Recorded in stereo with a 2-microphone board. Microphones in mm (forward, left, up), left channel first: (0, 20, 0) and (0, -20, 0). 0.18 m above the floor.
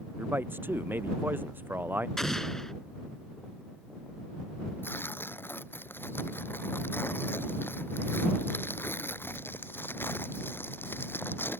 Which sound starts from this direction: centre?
An explosion, at 2.2 s.